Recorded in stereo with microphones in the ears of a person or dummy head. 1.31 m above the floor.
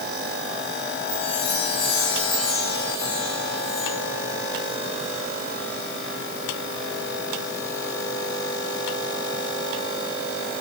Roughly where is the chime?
Left.